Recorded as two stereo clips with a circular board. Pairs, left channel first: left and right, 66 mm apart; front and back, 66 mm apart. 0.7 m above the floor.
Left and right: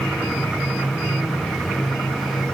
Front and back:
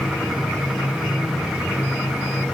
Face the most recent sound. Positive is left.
No sound to turn to.